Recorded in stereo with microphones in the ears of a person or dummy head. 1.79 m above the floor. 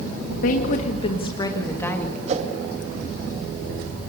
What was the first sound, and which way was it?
A woman speaking, 60° left (ahead or behind).